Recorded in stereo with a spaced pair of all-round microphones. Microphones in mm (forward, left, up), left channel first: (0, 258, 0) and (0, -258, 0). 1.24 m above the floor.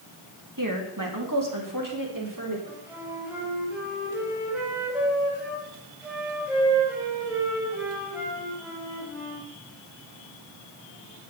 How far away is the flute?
About 5 m.